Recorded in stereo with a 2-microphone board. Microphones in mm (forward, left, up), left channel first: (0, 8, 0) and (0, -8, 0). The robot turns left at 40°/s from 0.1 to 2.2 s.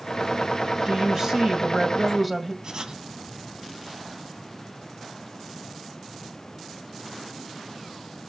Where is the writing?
50° right (ahead or behind), 1.6 m.